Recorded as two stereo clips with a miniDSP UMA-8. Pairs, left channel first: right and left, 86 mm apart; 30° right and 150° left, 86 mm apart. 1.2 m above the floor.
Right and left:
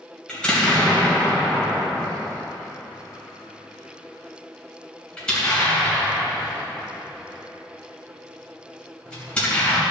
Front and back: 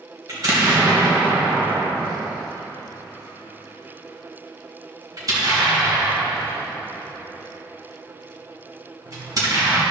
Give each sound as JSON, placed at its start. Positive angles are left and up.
{"t": 0.3, "sound": "an explosion", "azimuth_deg": -170, "distance_m": 3.0}